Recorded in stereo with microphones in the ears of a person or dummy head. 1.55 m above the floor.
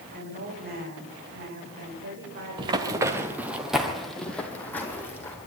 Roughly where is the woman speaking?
Right.